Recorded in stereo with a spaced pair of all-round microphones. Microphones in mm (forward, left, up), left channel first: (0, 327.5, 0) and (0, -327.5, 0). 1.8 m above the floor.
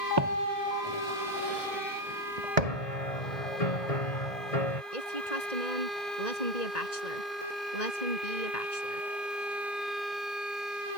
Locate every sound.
0.2 s footsteps: 40° right (ahead or behind); by 2.9 s 70° right (ahead or behind)
2.6 s a piano: 70° left (ahead or behind)
4.9 s a woman speaking: 75° left (ahead or behind)